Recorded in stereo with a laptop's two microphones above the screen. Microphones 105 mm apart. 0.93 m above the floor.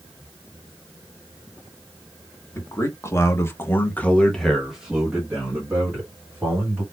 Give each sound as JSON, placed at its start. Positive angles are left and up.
{"t": 2.5, "sound": "a man speaking", "side_deg": 25, "distance_m": 1.4}